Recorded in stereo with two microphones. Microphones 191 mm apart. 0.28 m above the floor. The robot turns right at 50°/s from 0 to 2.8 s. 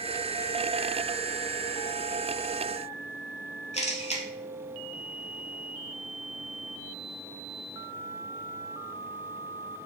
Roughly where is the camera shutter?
Left.